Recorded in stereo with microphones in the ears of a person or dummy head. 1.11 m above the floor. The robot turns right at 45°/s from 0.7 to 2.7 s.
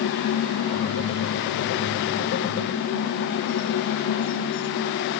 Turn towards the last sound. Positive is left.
No sound to turn to.